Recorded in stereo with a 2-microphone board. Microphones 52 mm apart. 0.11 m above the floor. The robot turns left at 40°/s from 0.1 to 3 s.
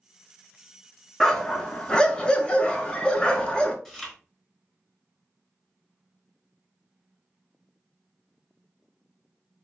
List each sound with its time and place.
1.2 s a dog barking: 10° left (ahead or behind), 0.5 m; by 3.8 s 20° left (ahead or behind), 0.5 m
3.9 s chewing: 10° left (ahead or behind), 1.0 m